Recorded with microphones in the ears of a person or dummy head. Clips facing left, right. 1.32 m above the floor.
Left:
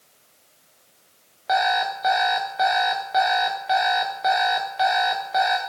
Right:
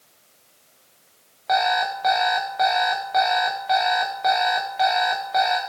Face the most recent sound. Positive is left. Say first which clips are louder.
# right 1 dB
turn(degrees=5)  # may be behind; listen again after turning